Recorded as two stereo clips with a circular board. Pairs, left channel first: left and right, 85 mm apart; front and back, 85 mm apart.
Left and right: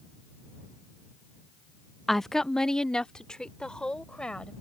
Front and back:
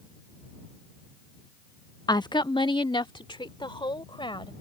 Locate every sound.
2.1 s a woman speaking: 5° left; by 4.5 s 10° left